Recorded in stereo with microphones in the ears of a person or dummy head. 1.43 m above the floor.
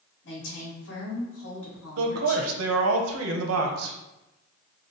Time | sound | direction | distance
0.2 | a woman speaking | 65° left (ahead or behind) | 2.0 m
2.0 | a man speaking | 85° right | 0.8 m